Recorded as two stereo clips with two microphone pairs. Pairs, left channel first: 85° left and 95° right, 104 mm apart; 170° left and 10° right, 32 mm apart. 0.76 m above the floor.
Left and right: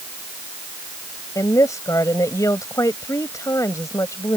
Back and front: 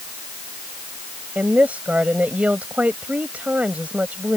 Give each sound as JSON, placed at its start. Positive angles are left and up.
{"t": 1.4, "sound": "a woman speaking", "azimuth_deg": 25}